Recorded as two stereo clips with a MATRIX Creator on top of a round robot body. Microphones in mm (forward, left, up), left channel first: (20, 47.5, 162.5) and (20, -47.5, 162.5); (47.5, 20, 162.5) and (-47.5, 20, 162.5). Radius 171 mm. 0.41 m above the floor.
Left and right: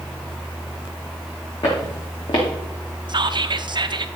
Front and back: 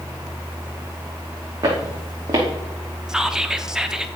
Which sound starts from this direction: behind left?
Footsteps, at 1.6 s.